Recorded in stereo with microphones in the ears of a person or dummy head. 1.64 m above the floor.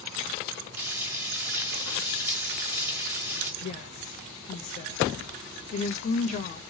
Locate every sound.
0.8 s frying: 10° right (ahead or behind), 1.2 m
3.6 s a woman speaking: 45° left (ahead or behind), 0.6 m